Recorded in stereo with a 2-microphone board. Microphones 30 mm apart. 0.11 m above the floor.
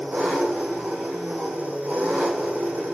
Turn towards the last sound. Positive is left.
turn(degrees=-70)  # may be behind; listen again after turning